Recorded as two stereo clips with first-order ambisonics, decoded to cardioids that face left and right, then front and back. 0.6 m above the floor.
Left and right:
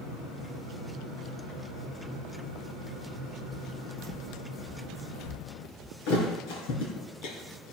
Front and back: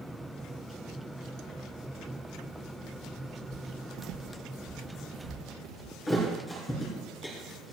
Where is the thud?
75° left, 4.5 m.